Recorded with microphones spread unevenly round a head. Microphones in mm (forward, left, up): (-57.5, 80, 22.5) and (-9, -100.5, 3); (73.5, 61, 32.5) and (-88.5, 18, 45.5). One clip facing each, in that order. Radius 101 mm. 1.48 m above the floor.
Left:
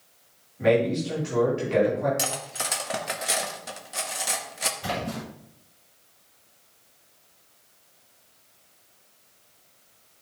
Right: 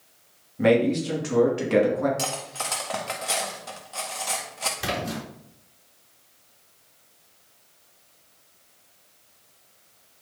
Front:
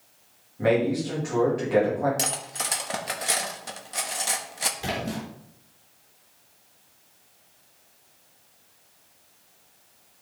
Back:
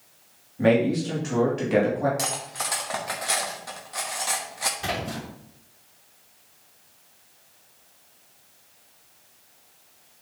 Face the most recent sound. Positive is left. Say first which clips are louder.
# right 1 dB, front 1 dB
turn(degrees=-65)